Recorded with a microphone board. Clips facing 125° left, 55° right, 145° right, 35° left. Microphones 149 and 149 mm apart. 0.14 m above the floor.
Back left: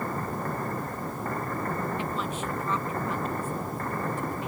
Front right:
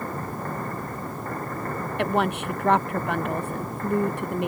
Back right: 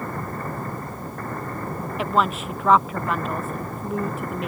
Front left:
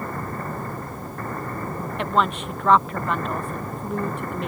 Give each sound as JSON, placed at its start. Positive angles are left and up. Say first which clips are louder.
{"t": 2.0, "sound": "a woman speaking", "louder": "front right 7 dB, even", "azimuth_deg": -60}